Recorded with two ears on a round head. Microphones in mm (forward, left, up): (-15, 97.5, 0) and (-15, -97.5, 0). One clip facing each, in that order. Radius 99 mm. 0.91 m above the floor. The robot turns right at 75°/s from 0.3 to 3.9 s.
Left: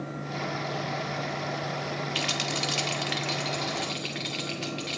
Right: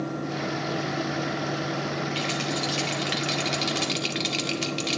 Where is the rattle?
70° left (ahead or behind), 1.8 m; by 5.0 s 60° right (ahead or behind), 1.8 m.